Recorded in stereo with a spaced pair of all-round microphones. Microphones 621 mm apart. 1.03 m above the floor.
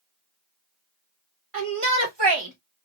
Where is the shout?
60° right (ahead or behind), 1.4 m; by 2.9 s 15° right (ahead or behind), 0.9 m.